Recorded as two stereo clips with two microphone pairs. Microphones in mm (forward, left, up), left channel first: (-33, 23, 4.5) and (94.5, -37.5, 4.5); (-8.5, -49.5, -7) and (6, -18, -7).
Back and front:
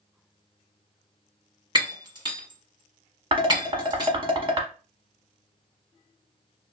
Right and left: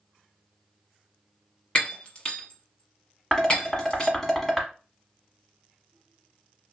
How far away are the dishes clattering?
About 1.0 m.